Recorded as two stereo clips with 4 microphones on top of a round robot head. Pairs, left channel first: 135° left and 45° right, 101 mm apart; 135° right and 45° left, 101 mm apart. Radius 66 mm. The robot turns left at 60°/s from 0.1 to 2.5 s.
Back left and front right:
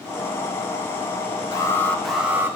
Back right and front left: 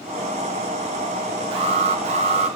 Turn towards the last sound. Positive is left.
turn(degrees=20)